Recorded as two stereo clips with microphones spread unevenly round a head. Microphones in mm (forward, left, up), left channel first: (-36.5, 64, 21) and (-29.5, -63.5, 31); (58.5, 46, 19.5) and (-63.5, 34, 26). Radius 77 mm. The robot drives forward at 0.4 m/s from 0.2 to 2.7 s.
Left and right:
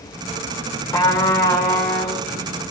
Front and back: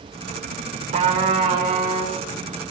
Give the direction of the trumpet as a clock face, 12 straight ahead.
7 o'clock.